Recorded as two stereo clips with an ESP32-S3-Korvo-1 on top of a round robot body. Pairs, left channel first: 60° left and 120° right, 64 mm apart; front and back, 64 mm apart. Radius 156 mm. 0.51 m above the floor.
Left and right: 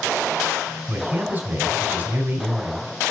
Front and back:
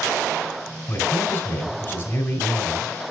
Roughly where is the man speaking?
Ahead right.